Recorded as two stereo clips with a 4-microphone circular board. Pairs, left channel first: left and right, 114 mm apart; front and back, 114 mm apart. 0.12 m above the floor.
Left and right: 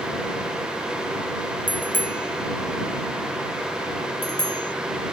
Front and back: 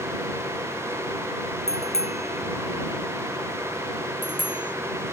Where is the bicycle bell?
15° left; by 4.7 s 40° left.